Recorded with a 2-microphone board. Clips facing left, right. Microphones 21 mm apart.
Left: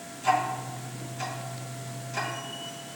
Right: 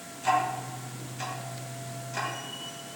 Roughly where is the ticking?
Centre.